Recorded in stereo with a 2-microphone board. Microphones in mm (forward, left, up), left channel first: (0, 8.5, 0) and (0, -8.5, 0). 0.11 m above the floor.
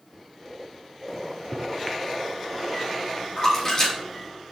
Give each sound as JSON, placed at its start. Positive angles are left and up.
{"t": 1.1, "sound": "a microwave", "side_deg": 15, "distance_m": 1.0}
{"t": 3.4, "sound": "a splash", "side_deg": 30, "distance_m": 3.0}